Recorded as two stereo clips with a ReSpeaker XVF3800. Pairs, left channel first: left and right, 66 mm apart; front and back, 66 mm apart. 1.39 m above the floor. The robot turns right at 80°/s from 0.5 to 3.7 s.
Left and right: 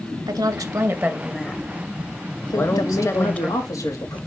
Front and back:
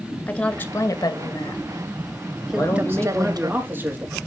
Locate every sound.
0.3 s a woman speaking: 70° right, 1.7 m; by 3.5 s 175° left, 1.7 m
2.5 s a man speaking: 30° left, 3.5 m; by 4.2 s 125° left, 3.5 m